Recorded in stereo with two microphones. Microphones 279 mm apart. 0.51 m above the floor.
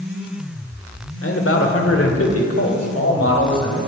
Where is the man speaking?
55° left (ahead or behind), 1.9 m; by 3.8 s 65° left (ahead or behind), 3 m.